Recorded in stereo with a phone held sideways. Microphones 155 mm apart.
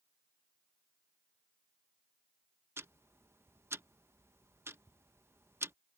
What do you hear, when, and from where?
2.8 s ticking: 15° right (ahead or behind)